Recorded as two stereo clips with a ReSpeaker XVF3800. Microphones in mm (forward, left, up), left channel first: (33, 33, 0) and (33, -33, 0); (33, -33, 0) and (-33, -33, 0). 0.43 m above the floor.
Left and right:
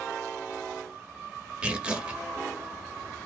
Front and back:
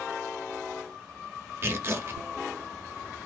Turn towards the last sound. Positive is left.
turn(degrees=-155)